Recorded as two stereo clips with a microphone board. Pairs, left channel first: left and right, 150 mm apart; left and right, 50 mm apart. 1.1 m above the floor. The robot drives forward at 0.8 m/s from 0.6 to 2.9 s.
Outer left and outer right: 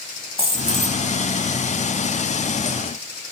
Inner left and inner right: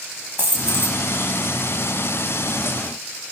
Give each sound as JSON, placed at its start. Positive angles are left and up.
{"t": 0.4, "sound": "a dropped coin", "side_deg": -40, "distance_m": 1.4}